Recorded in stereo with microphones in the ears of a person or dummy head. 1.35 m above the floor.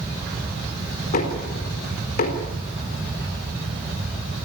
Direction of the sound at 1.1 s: 50° left (ahead or behind).